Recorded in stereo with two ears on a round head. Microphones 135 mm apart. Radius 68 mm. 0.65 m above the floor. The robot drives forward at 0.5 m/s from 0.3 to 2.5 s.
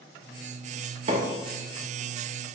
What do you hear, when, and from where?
1.1 s a microwave: 40° right (ahead or behind), 1.0 m